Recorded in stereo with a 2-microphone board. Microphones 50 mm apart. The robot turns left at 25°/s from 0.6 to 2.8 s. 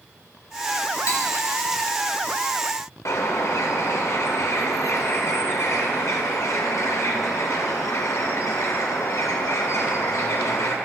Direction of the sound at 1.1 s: 80° left.